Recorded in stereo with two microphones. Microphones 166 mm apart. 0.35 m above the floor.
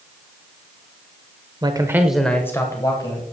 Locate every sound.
1.6 s a man speaking: 25° right (ahead or behind), 0.9 m; by 3.2 s 25° left (ahead or behind), 1.9 m